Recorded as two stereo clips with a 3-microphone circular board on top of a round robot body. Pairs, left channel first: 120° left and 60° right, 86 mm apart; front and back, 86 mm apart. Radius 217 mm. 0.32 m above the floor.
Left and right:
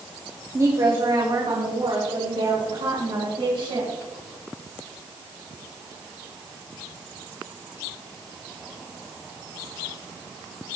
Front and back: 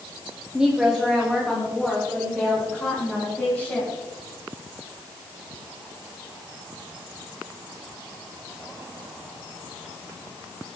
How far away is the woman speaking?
About 2 m.